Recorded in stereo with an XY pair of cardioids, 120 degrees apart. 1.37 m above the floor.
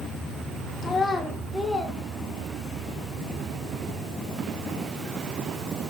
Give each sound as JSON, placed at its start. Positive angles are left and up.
{"t": 0.8, "sound": "a child speaking", "azimuth_deg": 35, "distance_m": 1.0}